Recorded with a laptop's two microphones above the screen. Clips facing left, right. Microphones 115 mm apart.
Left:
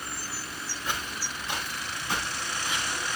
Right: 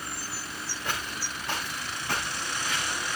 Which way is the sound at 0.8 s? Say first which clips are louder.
Even; 65° right (ahead or behind).